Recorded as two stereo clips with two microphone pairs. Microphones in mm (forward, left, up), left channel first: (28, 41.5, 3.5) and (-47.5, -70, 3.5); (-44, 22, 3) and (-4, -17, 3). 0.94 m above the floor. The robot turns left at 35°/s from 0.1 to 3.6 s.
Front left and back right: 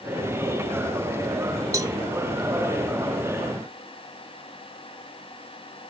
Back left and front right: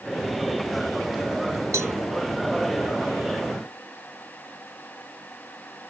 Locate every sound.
1.7 s a cowbell: 60° right; by 2.0 s 70° right